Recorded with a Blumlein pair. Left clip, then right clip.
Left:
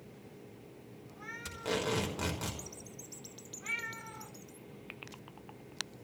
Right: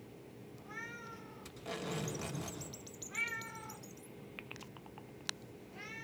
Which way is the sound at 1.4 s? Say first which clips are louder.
Left 8 dB; 35° left.